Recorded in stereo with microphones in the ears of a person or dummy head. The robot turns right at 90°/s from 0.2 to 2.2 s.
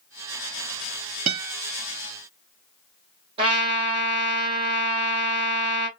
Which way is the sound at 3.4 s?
30° right (ahead or behind).